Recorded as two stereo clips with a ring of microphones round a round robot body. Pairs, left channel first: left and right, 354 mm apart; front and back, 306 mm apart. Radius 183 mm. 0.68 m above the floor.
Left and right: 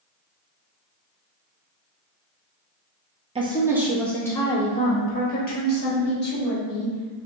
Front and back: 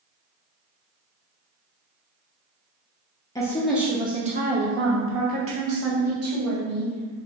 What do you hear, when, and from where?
3.4 s a woman speaking: 55° right, 0.8 m; by 7.3 s 145° left, 2 m